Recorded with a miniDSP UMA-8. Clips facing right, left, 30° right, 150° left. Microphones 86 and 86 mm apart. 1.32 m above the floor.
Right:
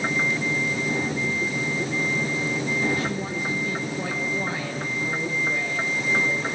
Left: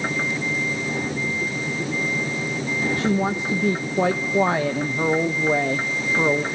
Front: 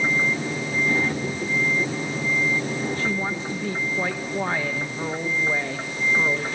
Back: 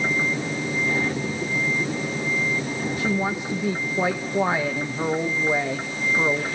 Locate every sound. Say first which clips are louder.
3.0 s a woman speaking: left 6 dB, back 2 dB; 75° left, 1.4 m